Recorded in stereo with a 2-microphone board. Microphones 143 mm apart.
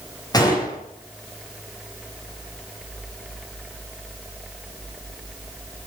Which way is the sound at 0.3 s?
25° left (ahead or behind).